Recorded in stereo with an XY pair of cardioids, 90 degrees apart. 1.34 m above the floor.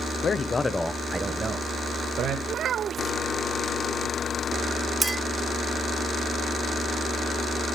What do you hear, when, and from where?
0.2 s a man speaking: 50° left, 1.3 m; by 2.4 s 75° right, 2 m
2.5 s a child speaking: 70° right, 0.8 m
5.0 s a clink: 20° right, 1.6 m